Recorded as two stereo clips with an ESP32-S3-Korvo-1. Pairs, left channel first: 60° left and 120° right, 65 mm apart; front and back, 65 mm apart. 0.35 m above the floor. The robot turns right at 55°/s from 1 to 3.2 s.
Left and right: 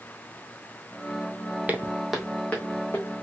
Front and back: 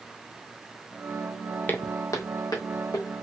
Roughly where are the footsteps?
Ahead right.